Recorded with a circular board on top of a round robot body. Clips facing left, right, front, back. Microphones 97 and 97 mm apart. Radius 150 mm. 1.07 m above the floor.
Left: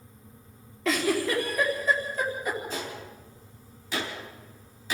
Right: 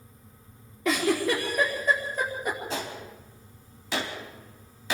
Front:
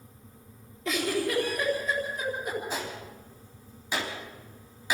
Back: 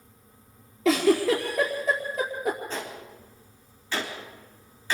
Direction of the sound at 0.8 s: 170° right.